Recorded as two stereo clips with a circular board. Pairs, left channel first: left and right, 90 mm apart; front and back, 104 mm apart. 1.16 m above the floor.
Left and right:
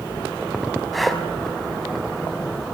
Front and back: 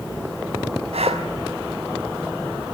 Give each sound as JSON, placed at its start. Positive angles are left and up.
{"t": 0.9, "sound": "breathing", "azimuth_deg": 180, "distance_m": 4.5}